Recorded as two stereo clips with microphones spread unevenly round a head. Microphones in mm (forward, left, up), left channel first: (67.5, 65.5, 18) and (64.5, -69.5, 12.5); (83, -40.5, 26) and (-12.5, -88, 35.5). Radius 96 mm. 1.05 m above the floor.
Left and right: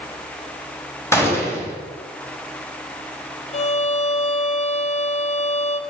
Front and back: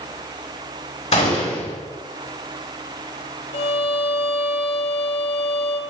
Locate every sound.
1.1 s a gunshot: 20° left, 5 m
3.5 s a violin: 50° left, 1.0 m